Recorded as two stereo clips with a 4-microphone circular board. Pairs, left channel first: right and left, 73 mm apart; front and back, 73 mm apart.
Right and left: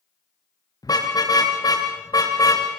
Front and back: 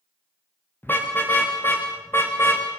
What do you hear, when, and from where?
0.8 s a car horn: 65° right, 7.5 m; by 2.7 s 55° right, 5 m